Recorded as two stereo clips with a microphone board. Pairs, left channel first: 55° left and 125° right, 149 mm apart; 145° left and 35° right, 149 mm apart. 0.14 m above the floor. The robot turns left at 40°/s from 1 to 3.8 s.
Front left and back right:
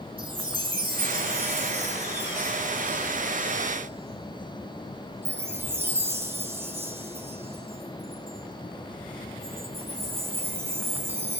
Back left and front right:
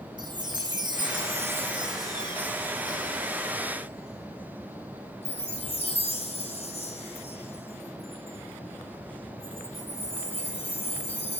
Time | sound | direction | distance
0.2 | a chime | 80° right | 1.9 m